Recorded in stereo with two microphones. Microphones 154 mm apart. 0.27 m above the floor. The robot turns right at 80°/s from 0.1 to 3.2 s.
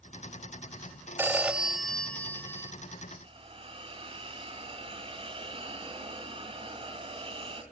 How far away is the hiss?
About 2.5 m.